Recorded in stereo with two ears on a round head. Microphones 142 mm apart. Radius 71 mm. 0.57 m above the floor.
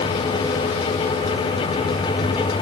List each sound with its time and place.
Only background noise.